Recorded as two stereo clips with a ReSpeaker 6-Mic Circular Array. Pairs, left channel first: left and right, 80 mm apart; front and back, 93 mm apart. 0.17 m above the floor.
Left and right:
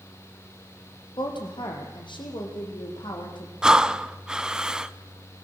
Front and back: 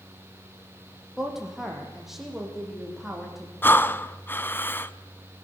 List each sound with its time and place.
1.2 s a woman speaking: 95° left, 5.5 m; by 3.5 s 90° left, 8 m
3.6 s breathing: 20° right, 0.8 m